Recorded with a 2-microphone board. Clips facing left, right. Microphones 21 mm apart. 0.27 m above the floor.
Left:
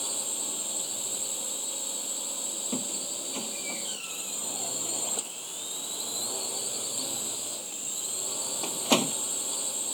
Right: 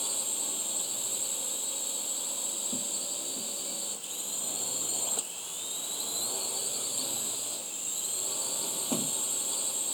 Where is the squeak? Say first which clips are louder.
Left 2 dB; 65° left (ahead or behind).